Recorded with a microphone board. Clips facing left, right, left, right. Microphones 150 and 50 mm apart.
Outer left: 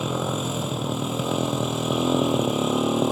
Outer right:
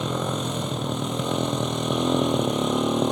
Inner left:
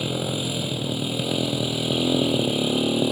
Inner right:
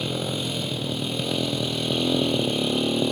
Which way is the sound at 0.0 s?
5° left (ahead or behind).